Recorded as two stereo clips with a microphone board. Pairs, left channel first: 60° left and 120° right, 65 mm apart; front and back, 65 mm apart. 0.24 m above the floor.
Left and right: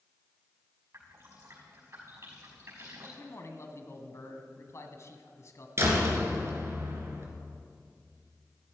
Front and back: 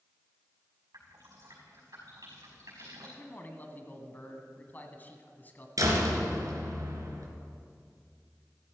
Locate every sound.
0.9 s dripping: 165° right, 5.5 m
3.2 s a man speaking: 50° left, 1.6 m
5.8 s a door slam: 160° right, 2.5 m